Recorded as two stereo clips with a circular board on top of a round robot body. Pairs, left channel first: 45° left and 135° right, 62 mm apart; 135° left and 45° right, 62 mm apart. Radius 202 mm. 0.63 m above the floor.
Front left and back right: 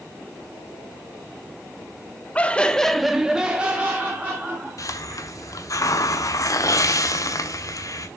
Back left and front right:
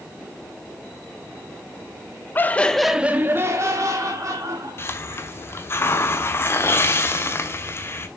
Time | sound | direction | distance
2.4 | laughter | 105° left | 1.4 m
4.8 | a hiss | 85° left | 1.1 m